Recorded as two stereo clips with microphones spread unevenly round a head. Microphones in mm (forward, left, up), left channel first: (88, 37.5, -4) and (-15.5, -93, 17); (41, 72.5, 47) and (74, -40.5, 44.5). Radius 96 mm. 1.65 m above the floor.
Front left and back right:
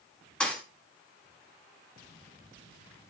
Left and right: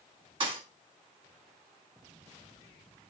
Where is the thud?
35° right, 1.6 m.